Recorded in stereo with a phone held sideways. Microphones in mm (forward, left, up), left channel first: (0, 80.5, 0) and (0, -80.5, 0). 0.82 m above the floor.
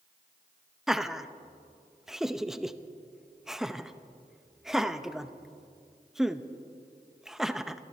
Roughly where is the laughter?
Centre.